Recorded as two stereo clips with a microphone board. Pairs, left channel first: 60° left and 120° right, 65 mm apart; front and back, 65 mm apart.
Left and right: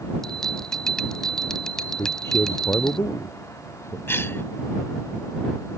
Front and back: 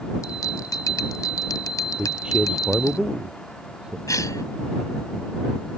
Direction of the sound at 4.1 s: 15° left.